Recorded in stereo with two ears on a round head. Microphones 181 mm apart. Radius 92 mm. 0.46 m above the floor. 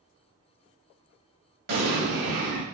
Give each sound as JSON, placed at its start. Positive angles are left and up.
{"t": 1.7, "sound": "an explosion", "side_deg": -45, "distance_m": 1.0}